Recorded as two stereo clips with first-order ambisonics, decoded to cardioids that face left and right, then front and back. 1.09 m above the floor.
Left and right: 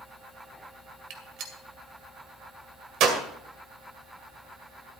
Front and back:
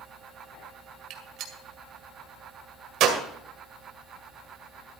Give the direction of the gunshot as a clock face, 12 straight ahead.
4 o'clock.